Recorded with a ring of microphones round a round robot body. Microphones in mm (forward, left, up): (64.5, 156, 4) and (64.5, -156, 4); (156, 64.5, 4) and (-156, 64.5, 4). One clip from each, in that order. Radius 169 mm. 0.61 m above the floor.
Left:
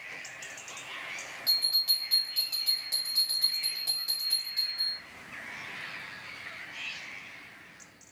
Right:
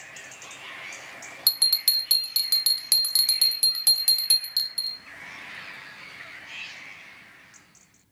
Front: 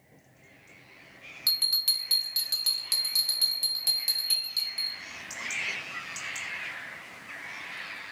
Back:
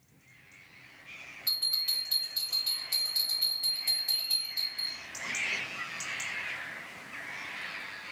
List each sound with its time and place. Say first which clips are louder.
1.5 s a bell: right 4 dB, front 4 dB; 60° right, 0.5 m